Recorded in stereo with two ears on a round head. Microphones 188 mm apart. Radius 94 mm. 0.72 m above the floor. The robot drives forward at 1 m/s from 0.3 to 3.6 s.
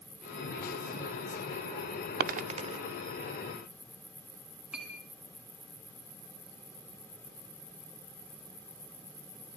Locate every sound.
2.2 s a dropped coin: 50° right (ahead or behind), 0.6 m; by 2.8 s 25° right (ahead or behind), 1.0 m
4.7 s a clink: 5° right (ahead or behind), 5 m